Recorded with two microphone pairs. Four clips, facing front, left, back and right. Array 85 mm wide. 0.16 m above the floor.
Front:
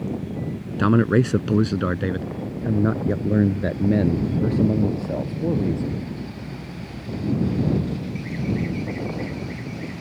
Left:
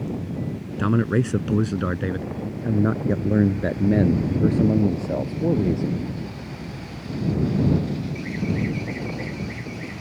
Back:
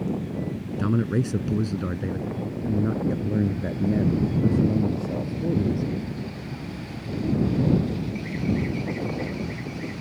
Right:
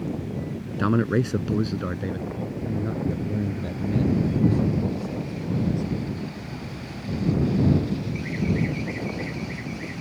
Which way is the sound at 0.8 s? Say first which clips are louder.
Left 1 dB, front 7 dB; 10° right.